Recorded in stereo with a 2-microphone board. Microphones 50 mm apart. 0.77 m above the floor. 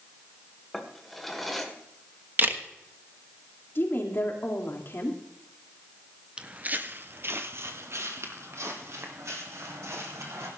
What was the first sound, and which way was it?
A drawer, 5° left (ahead or behind).